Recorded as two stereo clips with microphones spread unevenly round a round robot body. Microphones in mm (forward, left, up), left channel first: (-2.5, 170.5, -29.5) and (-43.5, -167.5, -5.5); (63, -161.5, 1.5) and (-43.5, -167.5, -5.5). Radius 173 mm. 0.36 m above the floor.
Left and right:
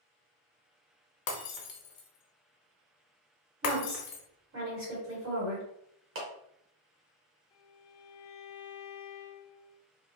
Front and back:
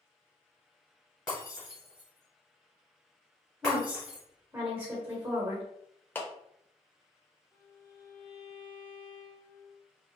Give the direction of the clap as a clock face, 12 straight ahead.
2 o'clock.